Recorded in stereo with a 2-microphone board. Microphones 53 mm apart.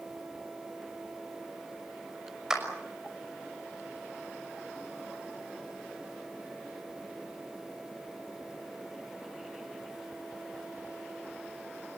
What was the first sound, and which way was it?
A clap, 10° right (ahead or behind).